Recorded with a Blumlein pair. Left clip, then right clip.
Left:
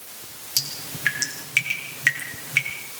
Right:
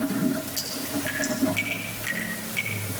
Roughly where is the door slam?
No door slam in this recording.